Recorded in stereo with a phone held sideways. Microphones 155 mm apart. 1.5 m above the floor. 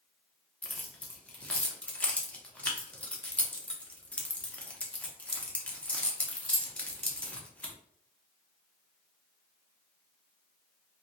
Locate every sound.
0.6 s keys jangling: 10° left (ahead or behind), 0.6 m